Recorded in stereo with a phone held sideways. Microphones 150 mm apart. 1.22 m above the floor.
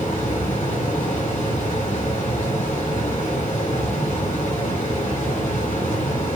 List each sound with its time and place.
0.0 s a fan: 55° left (ahead or behind), 1.6 m